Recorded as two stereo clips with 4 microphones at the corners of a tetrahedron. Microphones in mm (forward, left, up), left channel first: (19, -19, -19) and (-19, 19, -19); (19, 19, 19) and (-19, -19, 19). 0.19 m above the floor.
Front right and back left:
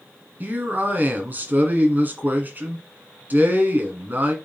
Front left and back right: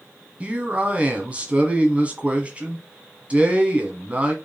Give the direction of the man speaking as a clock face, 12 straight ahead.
6 o'clock.